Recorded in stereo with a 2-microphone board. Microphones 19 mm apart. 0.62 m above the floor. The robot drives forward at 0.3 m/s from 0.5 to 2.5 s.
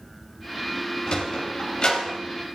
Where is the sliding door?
55° left (ahead or behind), 4 m; by 2.2 s 50° left (ahead or behind), 4 m.